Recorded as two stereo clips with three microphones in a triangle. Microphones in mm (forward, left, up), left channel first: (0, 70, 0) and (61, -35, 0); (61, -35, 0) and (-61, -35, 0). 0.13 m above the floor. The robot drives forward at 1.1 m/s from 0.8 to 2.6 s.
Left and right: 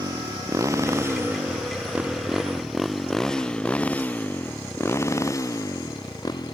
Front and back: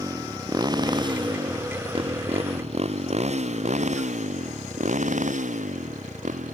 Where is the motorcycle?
120° right; by 6.5 s 175° left.